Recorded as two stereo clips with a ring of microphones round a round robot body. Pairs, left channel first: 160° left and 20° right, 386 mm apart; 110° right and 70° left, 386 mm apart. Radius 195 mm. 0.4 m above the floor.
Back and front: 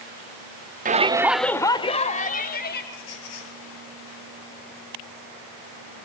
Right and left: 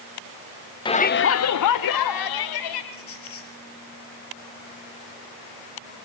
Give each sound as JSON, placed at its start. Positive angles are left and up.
{"t": 0.8, "sound": "a shout", "azimuth_deg": -50, "distance_m": 0.9}
{"t": 2.9, "sound": "a squeak", "azimuth_deg": -170, "distance_m": 5.5}